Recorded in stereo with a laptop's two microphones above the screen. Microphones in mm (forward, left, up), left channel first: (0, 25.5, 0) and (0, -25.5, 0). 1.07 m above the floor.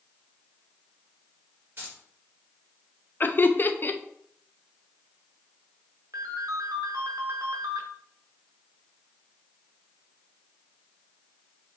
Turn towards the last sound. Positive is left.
turn(degrees=-80)